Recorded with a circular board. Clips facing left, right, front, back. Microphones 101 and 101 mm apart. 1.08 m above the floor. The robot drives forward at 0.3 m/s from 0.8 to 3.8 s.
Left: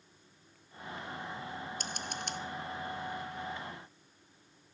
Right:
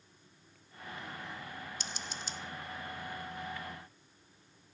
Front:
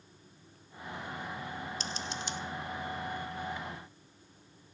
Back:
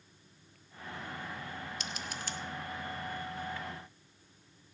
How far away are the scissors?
About 0.6 m.